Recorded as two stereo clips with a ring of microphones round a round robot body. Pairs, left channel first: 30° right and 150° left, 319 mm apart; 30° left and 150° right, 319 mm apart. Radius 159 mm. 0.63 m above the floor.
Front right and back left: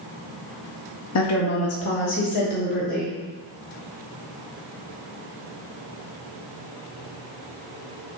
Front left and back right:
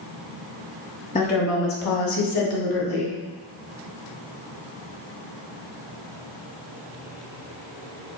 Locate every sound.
1.1 s a woman speaking: 35° right, 0.7 m; by 3.1 s 35° left, 1.7 m